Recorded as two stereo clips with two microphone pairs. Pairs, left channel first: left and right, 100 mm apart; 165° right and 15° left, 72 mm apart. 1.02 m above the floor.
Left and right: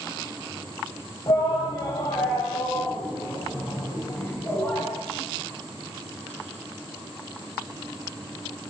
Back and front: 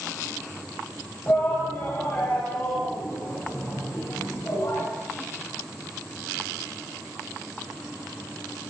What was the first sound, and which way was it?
A shout, 130° left.